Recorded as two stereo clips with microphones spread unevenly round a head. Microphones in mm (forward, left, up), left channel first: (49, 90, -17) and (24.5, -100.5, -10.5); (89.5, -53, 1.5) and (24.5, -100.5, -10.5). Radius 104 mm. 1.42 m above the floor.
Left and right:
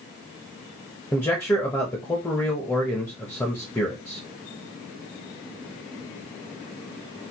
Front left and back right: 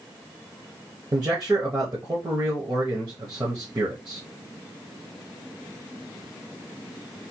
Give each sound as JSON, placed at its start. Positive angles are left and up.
{"t": 1.1, "sound": "a man speaking", "azimuth_deg": 160, "distance_m": 0.9}